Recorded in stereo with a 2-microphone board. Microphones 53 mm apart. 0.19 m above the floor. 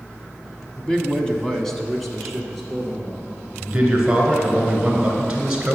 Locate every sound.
0.8 s a man speaking: 15° left (ahead or behind), 1.2 m; by 3.3 s centre (ahead or behind), 3.5 m
3.6 s a man speaking: 10° right (ahead or behind), 2.5 m